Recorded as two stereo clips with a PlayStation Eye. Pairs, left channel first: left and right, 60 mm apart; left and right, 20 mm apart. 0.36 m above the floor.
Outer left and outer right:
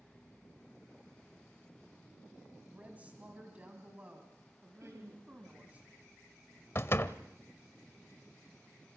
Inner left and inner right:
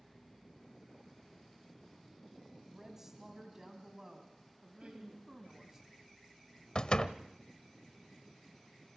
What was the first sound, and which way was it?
A woman speaking, 25° right (ahead or behind).